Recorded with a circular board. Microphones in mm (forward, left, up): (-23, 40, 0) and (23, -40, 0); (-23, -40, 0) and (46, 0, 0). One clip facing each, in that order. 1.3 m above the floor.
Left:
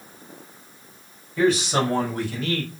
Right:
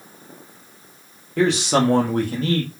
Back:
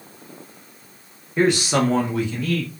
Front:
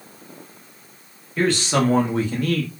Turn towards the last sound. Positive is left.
turn(degrees=10)